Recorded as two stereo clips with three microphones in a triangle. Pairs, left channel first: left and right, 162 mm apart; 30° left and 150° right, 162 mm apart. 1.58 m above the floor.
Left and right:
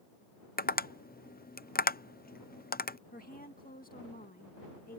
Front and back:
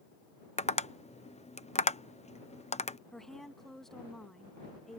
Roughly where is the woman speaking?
Behind left.